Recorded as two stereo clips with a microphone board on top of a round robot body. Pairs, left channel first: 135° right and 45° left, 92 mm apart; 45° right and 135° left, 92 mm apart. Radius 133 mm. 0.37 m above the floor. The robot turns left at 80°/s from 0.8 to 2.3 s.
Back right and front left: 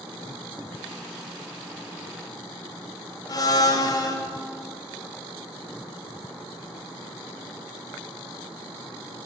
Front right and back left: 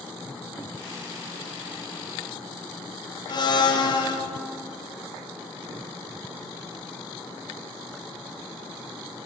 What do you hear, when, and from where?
3.3 s a blender: 85° right, 0.8 m